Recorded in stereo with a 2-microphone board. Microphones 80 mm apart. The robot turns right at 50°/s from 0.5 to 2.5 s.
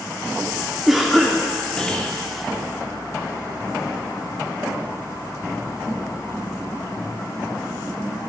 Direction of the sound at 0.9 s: 5° right (ahead or behind).